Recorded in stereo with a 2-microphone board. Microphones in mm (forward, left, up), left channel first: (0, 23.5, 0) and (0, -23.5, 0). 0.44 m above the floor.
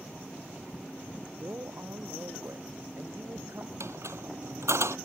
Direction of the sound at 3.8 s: 75° right (ahead or behind).